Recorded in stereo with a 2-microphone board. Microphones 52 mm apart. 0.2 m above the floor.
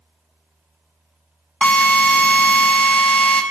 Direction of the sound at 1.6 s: 25° left (ahead or behind).